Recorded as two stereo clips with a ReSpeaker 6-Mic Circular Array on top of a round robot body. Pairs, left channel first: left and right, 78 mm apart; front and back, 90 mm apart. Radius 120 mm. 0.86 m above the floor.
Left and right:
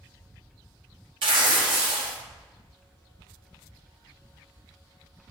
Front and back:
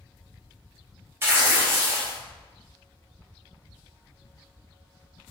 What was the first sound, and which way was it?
Tearing paper, 115° right.